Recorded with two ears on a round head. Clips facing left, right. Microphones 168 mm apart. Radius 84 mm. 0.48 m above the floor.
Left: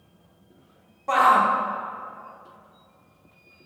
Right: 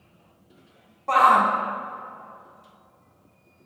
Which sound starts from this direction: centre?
A shout, at 1.1 s.